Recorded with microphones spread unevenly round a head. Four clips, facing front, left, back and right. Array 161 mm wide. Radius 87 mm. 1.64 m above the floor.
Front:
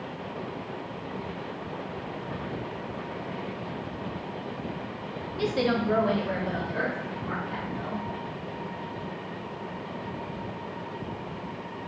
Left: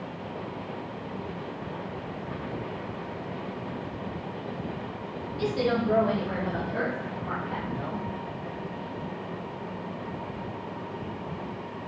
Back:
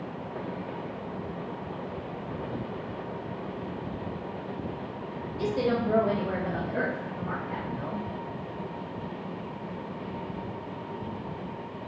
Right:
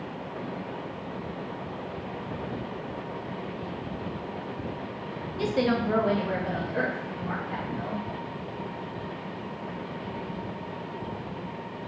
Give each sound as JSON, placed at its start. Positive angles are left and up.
{"t": 5.4, "sound": "a woman speaking", "azimuth_deg": -60, "distance_m": 0.5}